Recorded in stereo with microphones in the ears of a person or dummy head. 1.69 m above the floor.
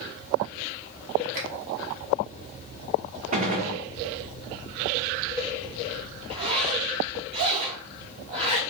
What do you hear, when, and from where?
1.3 s a finger snap: 40° right (ahead or behind), 0.8 m
3.3 s a gunshot: 40° right (ahead or behind), 0.6 m
6.3 s a zipper: 35° right (ahead or behind), 0.6 m